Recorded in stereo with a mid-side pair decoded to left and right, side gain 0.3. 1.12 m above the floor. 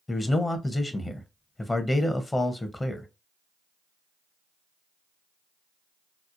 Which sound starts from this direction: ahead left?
A man speaking, at 0.1 s.